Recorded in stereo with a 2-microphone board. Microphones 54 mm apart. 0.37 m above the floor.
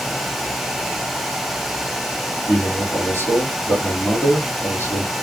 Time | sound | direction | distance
2.5 | a man speaking | 50° left (ahead or behind) | 3 m